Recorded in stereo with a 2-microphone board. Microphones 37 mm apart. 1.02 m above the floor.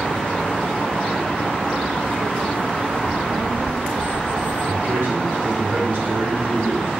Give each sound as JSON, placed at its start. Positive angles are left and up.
{"t": 3.0, "sound": "a child speaking", "side_deg": -40, "distance_m": 0.8}
{"t": 4.7, "sound": "a man speaking", "side_deg": -75, "distance_m": 4.0}